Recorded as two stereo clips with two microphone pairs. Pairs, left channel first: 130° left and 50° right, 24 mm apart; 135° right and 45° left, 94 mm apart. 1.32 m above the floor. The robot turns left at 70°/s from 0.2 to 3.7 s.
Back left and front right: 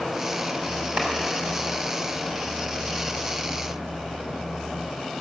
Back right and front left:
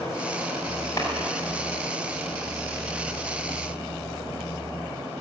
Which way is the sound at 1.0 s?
80° right.